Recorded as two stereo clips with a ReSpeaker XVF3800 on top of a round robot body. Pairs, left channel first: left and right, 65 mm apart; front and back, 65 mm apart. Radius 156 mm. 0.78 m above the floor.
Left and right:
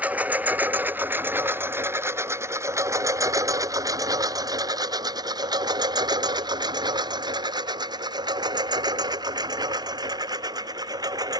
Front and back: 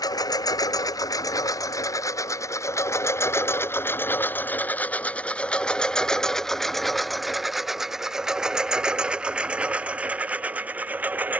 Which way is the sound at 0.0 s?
20° right.